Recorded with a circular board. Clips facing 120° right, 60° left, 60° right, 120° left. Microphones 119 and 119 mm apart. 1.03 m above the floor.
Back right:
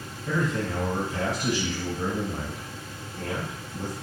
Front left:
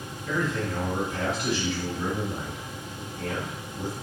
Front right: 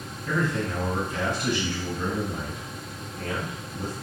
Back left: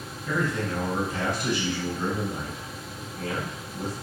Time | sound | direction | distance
0.3 | a man speaking | 165° right | 1.6 m